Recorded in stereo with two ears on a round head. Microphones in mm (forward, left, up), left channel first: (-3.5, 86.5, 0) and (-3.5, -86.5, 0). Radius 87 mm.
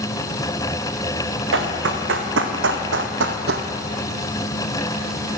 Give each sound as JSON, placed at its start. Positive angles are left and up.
{"t": 1.5, "sound": "running footsteps", "side_deg": -65, "distance_m": 1.7}